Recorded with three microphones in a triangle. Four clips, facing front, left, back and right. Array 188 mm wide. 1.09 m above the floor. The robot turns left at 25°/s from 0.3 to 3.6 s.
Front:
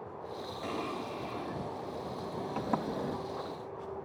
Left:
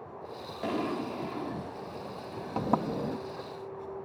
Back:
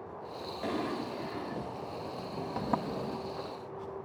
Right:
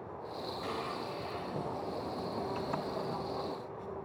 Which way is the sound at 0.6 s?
115° left.